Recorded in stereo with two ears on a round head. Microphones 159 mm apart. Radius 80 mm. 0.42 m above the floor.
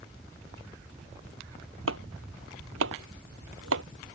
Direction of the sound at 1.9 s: 85° right.